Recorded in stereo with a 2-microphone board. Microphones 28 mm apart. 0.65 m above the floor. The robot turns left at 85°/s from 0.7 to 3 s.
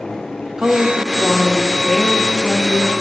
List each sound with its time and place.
0.6 s a woman speaking: 25° right (ahead or behind), 0.5 m; by 2.9 s 25° left (ahead or behind), 0.5 m